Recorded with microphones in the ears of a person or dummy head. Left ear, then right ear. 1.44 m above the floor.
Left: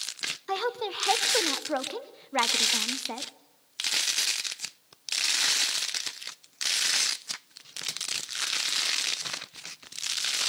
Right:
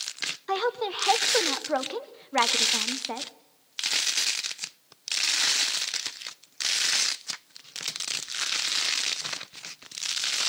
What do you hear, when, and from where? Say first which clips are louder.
0.5 s a woman speaking: right 3 dB; 5° right (ahead or behind), 0.6 m